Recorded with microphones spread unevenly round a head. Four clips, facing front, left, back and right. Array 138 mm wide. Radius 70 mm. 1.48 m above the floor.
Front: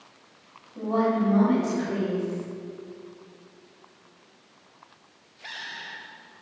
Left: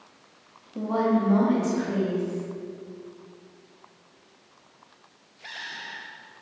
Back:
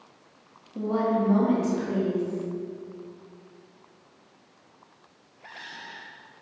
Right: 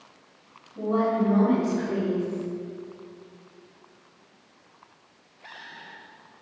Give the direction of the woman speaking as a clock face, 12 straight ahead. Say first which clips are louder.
Even, front 1 dB; 8 o'clock.